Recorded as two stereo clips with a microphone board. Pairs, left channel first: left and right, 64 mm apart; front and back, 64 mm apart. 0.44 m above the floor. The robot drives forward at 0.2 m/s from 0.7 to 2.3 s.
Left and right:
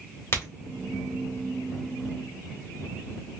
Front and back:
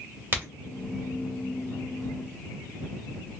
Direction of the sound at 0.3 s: 135° left.